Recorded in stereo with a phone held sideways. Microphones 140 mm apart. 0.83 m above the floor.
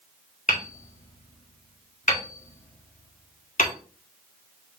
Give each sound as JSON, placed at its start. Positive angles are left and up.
{"t": 0.5, "sound": "hammering", "side_deg": 70, "distance_m": 2.0}